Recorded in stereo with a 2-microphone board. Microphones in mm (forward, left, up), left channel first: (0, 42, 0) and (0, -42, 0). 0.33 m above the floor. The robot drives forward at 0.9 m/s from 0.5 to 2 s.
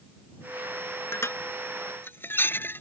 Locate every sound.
1.1 s dishes clattering: 30° left (ahead or behind); by 2.8 s 25° left (ahead or behind)